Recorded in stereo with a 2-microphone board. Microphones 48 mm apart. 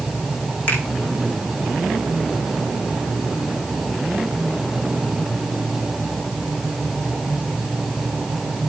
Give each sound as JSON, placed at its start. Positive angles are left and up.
{"t": 0.7, "sound": "a finger snap", "side_deg": 35, "distance_m": 6.5}